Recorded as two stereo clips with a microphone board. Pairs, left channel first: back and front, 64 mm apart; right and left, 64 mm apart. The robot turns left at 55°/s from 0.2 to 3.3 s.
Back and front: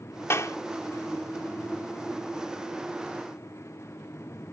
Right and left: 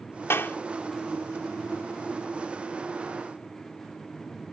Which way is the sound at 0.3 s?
135° right.